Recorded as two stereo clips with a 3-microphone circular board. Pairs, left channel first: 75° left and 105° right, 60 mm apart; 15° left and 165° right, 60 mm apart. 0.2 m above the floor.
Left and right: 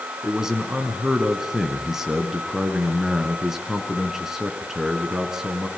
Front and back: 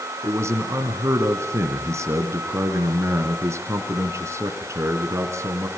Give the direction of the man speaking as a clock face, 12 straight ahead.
6 o'clock.